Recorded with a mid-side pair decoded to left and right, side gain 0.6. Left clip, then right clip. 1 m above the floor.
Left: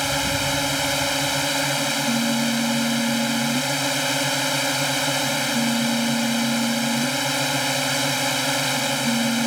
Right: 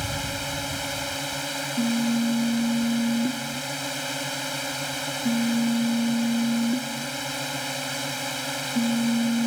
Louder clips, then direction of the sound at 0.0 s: Left 7 dB; 40° left.